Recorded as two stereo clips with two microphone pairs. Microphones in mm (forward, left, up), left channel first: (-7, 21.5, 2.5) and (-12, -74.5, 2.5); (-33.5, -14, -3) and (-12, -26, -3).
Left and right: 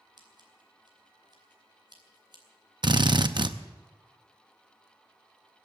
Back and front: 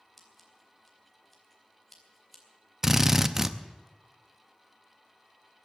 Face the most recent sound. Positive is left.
turn(degrees=-100)